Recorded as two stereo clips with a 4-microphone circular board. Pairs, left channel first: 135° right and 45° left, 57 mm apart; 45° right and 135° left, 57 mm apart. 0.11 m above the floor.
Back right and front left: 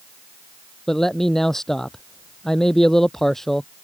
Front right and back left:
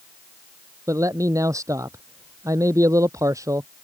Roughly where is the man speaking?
Behind left.